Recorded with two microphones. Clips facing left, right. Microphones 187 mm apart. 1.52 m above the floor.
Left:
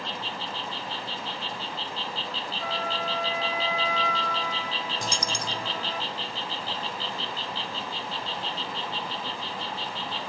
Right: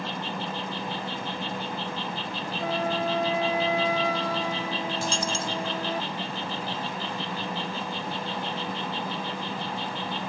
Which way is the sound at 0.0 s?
60° right (ahead or behind).